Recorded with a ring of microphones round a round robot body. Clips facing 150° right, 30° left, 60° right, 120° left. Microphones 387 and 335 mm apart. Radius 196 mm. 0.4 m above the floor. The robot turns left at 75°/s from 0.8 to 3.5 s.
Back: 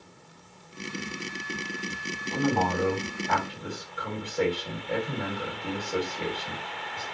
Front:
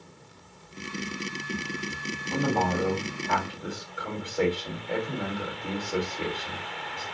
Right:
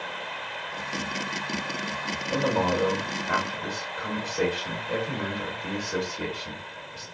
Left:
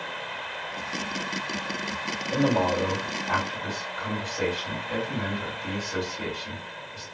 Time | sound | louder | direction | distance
2.3 | a man speaking | even, left 2 dB | 30° left | 1.8 m